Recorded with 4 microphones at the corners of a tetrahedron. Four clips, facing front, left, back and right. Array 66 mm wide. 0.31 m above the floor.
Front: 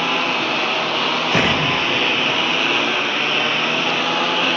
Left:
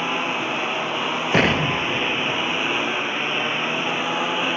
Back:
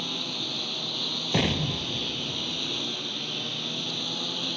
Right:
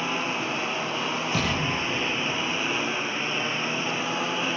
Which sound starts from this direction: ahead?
A lawn mower, at 0.0 s.